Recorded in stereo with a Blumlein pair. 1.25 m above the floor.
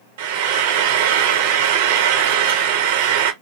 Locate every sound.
0.2 s frying: 55° right, 0.6 m